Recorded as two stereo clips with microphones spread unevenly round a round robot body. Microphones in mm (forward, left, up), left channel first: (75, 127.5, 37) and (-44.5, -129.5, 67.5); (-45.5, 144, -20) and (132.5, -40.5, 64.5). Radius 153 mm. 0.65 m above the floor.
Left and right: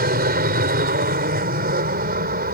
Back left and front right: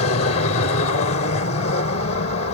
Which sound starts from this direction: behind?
An aircraft, at 0.0 s.